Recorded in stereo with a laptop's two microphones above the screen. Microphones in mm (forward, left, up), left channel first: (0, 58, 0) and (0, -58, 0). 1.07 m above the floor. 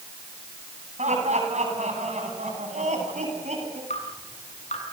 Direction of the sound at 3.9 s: 90° left.